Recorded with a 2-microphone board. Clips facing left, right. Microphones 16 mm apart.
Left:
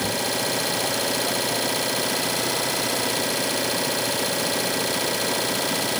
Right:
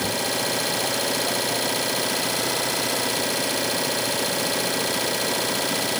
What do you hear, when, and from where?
0.0 s an engine running: centre (ahead or behind)